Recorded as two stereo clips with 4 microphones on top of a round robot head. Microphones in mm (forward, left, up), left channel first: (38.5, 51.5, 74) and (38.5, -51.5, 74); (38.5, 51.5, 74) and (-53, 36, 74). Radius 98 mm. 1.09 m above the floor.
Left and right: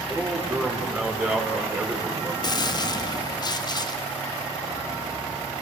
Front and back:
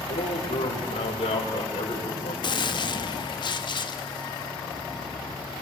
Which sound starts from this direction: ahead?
A man speaking, at 0.1 s.